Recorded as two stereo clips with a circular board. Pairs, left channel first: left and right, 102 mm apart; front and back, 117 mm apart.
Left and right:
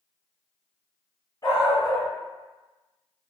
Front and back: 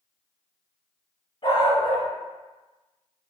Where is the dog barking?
40° left, 2.0 m.